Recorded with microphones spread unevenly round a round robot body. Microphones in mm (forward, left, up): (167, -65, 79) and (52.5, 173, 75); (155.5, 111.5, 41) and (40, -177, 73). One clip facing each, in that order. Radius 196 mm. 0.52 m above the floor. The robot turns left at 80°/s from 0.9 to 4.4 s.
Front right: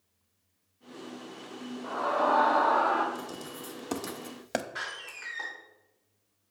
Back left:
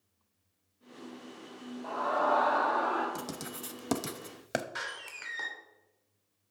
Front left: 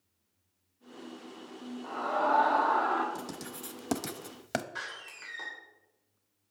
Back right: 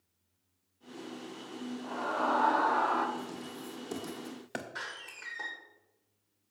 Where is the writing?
135° left, 0.8 m; by 4.7 s 35° left, 0.8 m.